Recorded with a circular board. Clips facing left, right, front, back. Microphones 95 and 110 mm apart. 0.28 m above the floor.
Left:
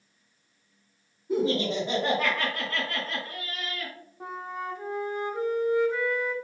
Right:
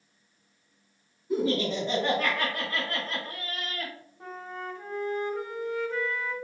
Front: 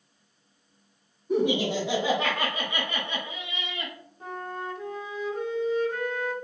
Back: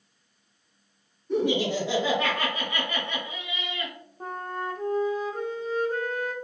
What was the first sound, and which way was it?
Laughter, 60° left.